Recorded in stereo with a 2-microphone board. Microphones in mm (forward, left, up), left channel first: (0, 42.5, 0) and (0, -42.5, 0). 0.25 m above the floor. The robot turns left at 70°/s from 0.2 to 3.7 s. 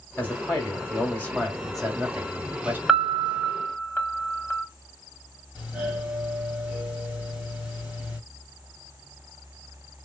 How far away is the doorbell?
About 2.5 m.